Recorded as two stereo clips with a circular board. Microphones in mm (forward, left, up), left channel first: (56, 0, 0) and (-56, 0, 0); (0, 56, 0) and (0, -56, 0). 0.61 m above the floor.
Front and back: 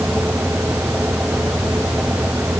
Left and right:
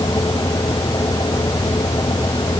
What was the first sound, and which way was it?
Only background noise.